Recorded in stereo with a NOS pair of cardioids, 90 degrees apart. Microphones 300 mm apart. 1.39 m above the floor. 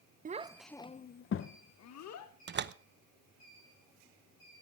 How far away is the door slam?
About 0.9 m.